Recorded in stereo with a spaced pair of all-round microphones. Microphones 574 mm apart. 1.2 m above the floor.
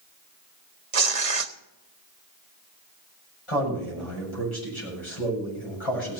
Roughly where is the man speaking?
Left.